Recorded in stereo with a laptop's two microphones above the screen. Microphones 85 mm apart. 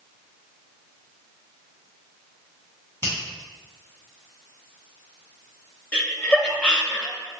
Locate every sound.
3.0 s a finger snap: 30° left (ahead or behind), 1.3 m
5.9 s laughter: 10° left (ahead or behind), 0.6 m